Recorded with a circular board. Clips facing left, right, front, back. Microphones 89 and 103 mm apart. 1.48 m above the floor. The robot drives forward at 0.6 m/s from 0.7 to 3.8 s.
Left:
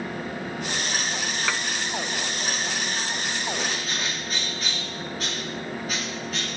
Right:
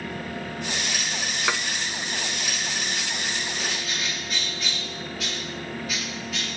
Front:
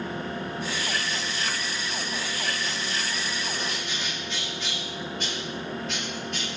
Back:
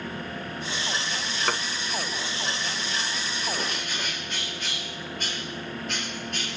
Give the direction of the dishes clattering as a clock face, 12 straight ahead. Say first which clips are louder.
Right 3 dB, back 5 dB; 5 o'clock.